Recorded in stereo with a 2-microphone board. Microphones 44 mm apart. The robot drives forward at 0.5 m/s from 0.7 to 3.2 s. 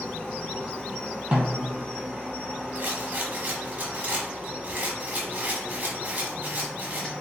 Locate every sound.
0.0 s an insect: 20° left (ahead or behind), 1.2 m; by 7.2 s 10° left (ahead or behind), 2.5 m
1.3 s a snare drum: 25° right (ahead or behind), 1.4 m
2.8 s a rattle: 45° right (ahead or behind), 0.8 m; by 7.1 s 35° right (ahead or behind), 1.0 m